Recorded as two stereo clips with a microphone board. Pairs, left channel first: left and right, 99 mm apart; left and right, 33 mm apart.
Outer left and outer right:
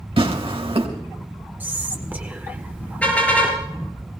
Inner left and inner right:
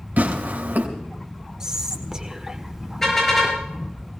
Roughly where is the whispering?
Centre.